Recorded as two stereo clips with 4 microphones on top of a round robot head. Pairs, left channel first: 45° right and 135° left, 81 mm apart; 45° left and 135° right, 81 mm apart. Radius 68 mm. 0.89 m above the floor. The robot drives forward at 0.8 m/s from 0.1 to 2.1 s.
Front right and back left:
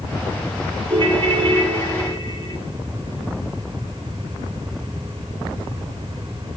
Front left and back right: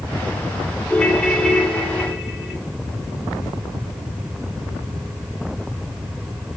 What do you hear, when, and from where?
0.9 s a ringtone: 120° left, 1.7 m; by 2.6 s 140° left, 2.5 m